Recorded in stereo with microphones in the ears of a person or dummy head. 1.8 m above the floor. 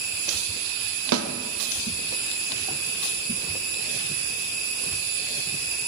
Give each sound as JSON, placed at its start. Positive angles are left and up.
{"t": 1.1, "sound": "a snare drum", "side_deg": -75, "distance_m": 0.8}